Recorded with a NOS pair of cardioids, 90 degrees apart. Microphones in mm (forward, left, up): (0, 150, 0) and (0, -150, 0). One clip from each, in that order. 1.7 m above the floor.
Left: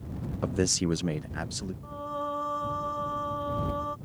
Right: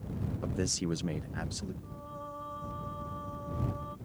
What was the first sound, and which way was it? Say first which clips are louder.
A man speaking: left 7 dB; 30° left.